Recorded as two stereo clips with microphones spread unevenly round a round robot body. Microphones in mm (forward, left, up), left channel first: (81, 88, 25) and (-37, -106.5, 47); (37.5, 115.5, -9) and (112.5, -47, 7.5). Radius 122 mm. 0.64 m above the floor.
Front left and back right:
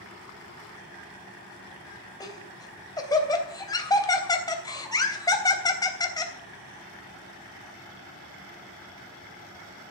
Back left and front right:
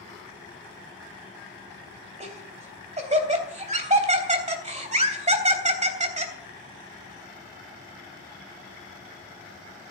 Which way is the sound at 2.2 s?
15° right.